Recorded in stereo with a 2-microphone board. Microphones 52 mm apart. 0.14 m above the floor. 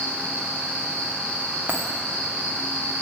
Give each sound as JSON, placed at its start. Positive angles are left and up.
{"t": 0.0, "sound": "an insect", "side_deg": 25, "distance_m": 1.5}
{"t": 1.7, "sound": "a dropped coin", "side_deg": -30, "distance_m": 1.6}